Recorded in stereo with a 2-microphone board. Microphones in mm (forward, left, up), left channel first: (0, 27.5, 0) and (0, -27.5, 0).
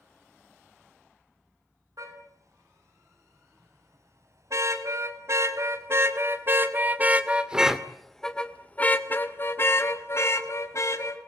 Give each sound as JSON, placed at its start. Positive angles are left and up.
{"t": 2.0, "sound": "a car horn", "side_deg": -75, "distance_m": 8.0}